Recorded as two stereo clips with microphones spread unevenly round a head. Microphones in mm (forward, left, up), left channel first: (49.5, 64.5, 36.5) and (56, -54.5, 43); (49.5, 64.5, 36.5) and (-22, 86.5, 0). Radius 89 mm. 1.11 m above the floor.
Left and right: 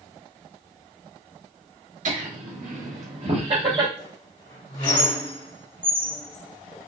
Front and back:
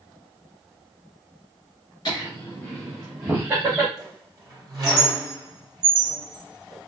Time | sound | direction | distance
2.0 | laughter | 85° right | 1.5 m
4.0 | a squeak | 115° left | 2.5 m